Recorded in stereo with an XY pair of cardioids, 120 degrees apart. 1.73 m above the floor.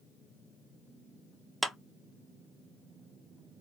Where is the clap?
5° right, 1.1 m.